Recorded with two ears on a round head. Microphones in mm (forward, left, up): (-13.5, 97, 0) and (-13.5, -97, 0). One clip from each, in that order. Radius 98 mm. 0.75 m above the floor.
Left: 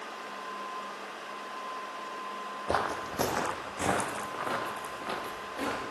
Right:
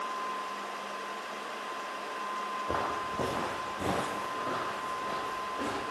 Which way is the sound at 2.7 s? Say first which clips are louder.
Left 4 dB; 50° left (ahead or behind).